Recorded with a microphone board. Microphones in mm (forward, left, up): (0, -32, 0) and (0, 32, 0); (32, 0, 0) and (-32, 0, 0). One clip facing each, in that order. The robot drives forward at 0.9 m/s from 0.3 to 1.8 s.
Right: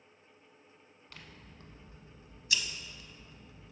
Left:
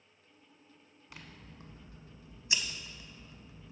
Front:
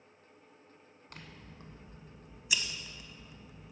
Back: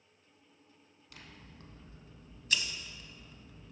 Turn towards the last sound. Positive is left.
turn(degrees=65)